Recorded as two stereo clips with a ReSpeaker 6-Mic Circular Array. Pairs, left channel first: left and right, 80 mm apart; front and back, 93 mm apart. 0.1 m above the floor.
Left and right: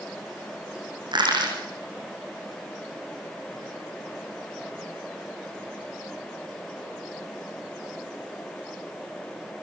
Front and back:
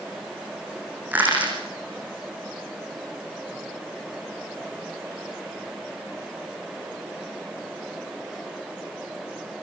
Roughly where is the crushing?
Right.